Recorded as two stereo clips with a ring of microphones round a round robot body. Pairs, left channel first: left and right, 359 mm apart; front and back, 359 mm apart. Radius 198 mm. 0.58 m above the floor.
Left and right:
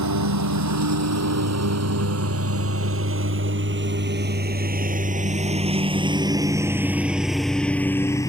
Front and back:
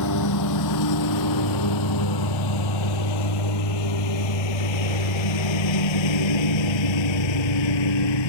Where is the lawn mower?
50° right; by 8.3 s 10° left.